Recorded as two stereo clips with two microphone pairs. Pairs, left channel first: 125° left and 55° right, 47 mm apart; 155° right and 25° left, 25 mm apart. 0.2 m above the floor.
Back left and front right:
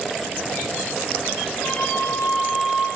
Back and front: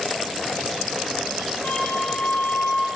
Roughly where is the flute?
Behind.